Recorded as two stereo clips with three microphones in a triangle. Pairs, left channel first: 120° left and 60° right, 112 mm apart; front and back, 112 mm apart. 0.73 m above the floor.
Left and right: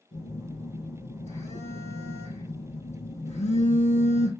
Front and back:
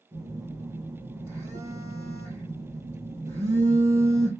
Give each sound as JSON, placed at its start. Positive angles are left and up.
{"t": 0.1, "sound": "a phone buzzing", "azimuth_deg": 120, "distance_m": 3.5}